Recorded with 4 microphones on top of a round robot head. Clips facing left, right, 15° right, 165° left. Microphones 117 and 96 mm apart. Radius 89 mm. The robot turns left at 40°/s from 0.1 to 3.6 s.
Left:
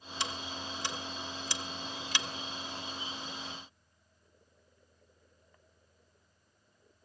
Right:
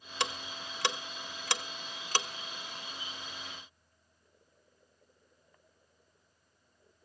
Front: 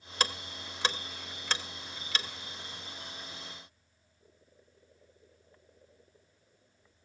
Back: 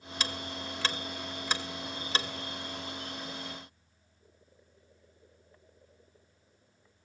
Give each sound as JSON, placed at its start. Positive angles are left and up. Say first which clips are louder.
{"t": 0.2, "sound": "ticking", "louder": "right 2 dB, front 2 dB", "azimuth_deg": -60, "distance_m": 1.0}